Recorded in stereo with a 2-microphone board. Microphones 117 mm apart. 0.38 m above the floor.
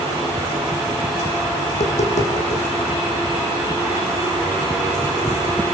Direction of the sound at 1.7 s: 70° left (ahead or behind).